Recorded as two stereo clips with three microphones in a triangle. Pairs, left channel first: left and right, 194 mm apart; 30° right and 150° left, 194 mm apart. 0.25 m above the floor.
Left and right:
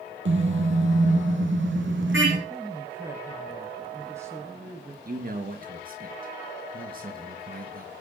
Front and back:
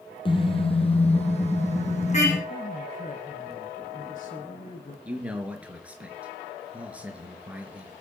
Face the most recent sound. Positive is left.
turn(degrees=-125)